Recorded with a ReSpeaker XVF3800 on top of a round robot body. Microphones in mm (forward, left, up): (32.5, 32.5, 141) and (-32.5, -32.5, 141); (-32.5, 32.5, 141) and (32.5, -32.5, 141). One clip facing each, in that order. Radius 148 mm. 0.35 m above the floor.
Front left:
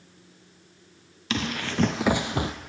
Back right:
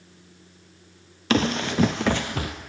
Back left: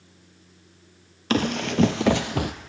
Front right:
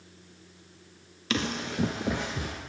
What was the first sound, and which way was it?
Running footsteps, straight behind.